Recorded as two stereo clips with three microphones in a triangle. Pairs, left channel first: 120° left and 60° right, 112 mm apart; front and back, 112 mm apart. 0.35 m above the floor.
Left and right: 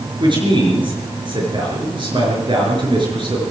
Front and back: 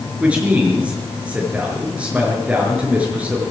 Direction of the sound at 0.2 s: 100° right.